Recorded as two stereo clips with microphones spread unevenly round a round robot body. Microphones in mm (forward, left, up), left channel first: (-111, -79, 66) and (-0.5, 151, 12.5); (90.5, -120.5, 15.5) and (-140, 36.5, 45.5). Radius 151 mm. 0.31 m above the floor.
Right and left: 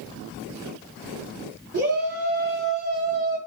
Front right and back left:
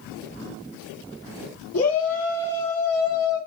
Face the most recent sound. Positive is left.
turn(degrees=0)